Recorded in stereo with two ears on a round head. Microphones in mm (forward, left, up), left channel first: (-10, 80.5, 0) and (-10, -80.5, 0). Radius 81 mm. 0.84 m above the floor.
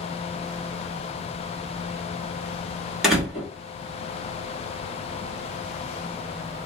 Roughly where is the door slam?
Centre.